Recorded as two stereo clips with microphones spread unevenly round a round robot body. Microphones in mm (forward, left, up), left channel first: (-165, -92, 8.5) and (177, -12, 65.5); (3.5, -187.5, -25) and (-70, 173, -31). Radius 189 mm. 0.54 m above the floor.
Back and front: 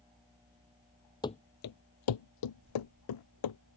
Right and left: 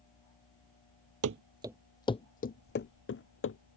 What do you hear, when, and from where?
1.2 s running footsteps: 105° left; by 3.6 s 135° right